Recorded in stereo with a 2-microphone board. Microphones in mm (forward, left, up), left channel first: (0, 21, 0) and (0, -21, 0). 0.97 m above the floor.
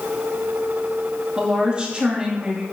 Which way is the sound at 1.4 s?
25° right (ahead or behind).